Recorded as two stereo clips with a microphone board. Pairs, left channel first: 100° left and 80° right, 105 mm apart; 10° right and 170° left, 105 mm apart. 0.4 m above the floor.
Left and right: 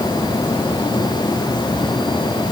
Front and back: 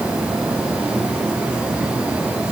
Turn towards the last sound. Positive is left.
No sound to turn to.